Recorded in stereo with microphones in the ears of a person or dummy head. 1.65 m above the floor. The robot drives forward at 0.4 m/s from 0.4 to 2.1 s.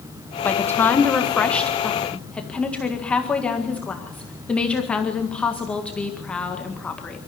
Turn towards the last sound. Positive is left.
turn(degrees=10)  # may be behind; listen again after turning